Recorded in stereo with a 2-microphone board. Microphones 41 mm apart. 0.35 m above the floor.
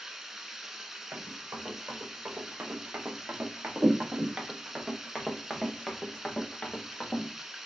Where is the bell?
No bell in this recording.